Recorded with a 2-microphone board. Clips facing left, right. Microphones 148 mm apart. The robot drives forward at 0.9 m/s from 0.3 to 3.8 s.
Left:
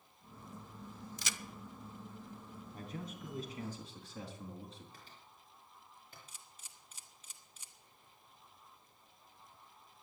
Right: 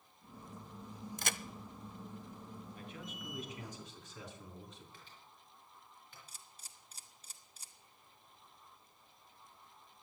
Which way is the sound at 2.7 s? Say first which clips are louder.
Left 3 dB; 45° left (ahead or behind).